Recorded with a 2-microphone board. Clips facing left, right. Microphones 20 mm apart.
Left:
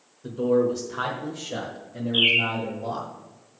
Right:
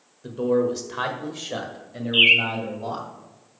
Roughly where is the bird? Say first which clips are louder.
Right 4 dB; right.